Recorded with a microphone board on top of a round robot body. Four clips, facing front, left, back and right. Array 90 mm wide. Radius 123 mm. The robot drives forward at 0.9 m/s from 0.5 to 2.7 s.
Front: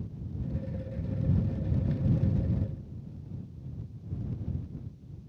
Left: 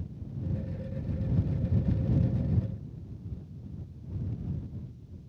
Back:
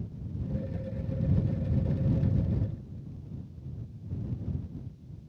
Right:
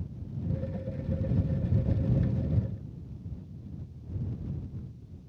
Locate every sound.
Only background noise.